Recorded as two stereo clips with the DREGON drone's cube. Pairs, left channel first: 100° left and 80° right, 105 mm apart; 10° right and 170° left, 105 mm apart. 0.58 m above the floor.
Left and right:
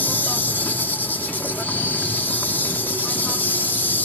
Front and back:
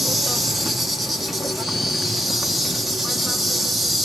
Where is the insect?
85° left, 0.9 m.